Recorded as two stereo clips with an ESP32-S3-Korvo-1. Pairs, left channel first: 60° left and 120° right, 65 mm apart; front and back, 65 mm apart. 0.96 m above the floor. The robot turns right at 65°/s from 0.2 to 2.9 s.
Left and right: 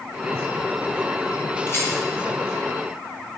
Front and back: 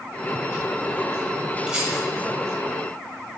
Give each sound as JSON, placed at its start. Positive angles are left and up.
{"t": 1.7, "sound": "a rattle", "azimuth_deg": 100, "distance_m": 1.7}